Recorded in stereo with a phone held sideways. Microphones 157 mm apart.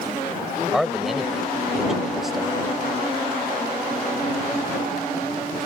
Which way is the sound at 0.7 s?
Centre (ahead or behind).